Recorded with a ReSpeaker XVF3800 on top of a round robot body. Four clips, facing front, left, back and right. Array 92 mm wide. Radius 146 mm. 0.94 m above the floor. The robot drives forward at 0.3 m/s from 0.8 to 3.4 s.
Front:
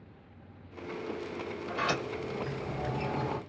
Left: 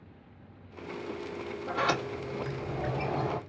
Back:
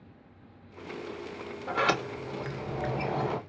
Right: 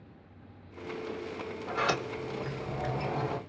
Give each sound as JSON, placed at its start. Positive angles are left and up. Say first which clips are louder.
{"t": 1.7, "sound": "a sliding door", "louder": "left 1 dB, back 5 dB", "azimuth_deg": -170, "distance_m": 1.6}